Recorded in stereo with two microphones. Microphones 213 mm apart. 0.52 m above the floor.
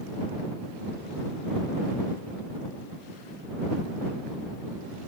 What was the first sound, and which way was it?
Only background noise.